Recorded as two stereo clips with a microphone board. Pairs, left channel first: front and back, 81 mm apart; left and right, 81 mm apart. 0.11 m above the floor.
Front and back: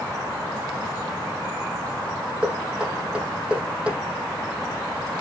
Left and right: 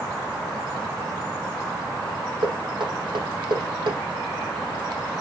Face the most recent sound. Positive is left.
turn(degrees=-105)